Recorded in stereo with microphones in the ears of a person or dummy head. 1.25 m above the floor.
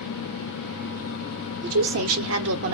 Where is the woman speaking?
75° right (ahead or behind), 0.8 m.